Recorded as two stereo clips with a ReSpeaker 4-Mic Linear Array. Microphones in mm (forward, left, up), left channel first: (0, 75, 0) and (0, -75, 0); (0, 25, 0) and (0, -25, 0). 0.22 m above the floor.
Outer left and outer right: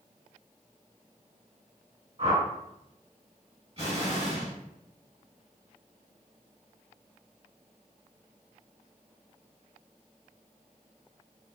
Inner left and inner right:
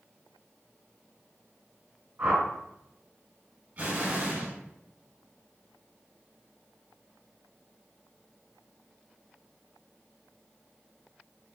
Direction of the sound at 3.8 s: 45° right (ahead or behind).